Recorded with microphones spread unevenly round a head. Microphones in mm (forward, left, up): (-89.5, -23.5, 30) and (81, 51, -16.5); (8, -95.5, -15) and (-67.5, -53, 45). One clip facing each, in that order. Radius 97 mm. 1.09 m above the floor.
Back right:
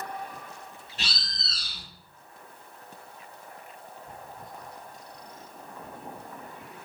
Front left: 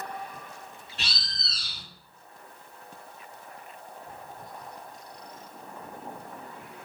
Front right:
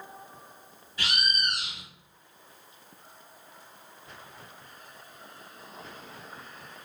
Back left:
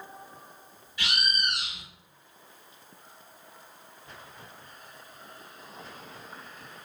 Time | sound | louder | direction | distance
1.0 | a bird | back right 2 dB, even | 65° right | 1.3 m